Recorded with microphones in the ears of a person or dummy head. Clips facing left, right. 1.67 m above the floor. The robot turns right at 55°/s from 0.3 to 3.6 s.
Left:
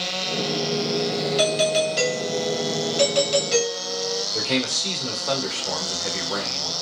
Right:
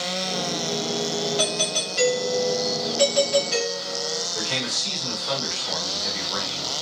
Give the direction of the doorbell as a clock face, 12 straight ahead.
11 o'clock.